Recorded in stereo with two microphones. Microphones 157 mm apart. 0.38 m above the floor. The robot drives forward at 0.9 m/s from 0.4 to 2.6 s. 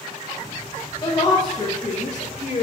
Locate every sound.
1.0 s a woman speaking: 30° left (ahead or behind), 1.9 m; by 2.6 s 50° left (ahead or behind), 1.3 m